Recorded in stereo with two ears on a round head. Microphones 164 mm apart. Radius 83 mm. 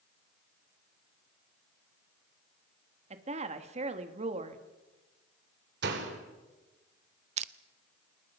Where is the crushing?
40° right (ahead or behind), 0.7 m.